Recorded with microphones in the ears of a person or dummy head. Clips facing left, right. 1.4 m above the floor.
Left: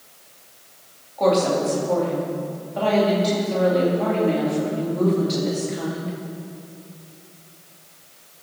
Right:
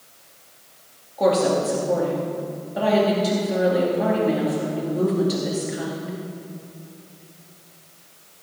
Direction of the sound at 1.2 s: 10° right (ahead or behind).